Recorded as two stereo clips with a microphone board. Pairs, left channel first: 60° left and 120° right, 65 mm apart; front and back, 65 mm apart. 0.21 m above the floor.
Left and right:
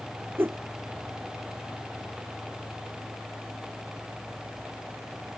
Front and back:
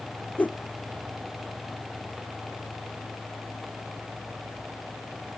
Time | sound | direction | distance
0.4 | a whoosh | 65° right | ?